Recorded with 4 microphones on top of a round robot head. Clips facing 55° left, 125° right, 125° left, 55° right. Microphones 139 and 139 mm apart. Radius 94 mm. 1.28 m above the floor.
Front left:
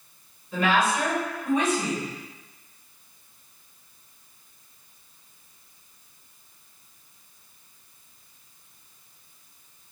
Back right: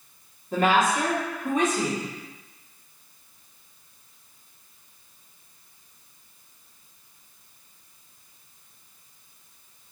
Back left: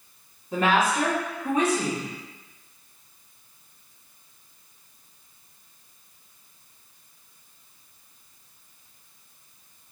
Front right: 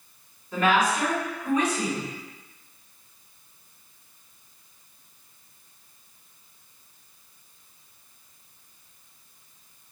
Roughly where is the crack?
No crack in this recording.